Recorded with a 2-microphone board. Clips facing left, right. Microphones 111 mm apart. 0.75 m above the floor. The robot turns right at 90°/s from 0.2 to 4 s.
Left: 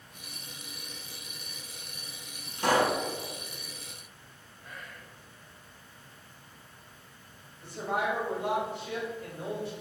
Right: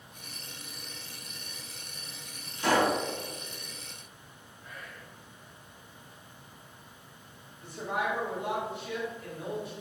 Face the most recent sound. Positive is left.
turn(degrees=30)  # may be behind; listen again after turning